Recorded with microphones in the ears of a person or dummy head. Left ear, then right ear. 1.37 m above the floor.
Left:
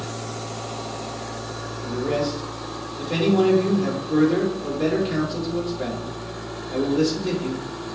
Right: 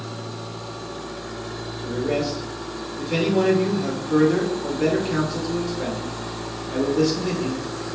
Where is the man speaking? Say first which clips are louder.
Even; 25° left (ahead or behind), 2.0 m.